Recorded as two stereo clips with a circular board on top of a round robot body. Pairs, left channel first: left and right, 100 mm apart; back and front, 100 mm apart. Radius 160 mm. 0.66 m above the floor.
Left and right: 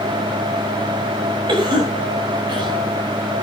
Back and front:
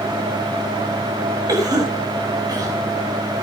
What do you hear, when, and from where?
1.5 s a cough: 50° right, 6.5 m